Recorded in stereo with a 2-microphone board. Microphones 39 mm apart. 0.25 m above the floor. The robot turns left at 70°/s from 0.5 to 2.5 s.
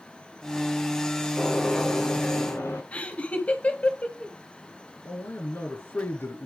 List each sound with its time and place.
1.4 s a gunshot: straight behind, 5.5 m; by 2.8 s 100° left, 5.5 m
2.9 s laughter: 35° left (ahead or behind), 1.1 m
5.0 s a man speaking: 65° left (ahead or behind), 3.5 m